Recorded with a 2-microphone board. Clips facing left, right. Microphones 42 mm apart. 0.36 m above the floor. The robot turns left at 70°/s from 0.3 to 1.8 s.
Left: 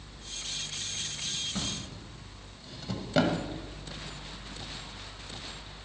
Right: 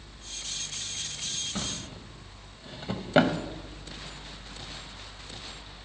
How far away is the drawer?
About 0.7 m.